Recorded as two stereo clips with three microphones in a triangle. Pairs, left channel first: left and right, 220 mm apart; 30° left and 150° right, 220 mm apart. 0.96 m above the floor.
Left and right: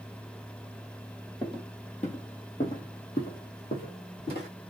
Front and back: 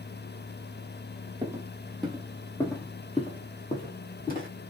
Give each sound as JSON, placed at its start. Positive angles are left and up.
{"t": 1.4, "sound": "footsteps", "azimuth_deg": 145, "distance_m": 1.2}